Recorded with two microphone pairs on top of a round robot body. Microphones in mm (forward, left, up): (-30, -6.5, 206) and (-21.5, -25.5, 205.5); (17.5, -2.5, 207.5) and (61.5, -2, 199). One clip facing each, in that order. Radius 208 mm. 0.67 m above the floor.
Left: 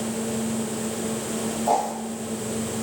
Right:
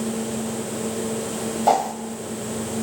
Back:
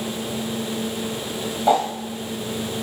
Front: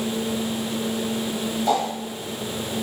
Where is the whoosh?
115° right, 0.9 m.